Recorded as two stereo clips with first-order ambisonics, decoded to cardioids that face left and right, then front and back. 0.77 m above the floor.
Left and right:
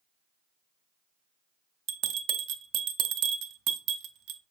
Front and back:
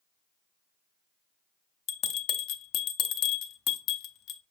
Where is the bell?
45° right, 0.5 m.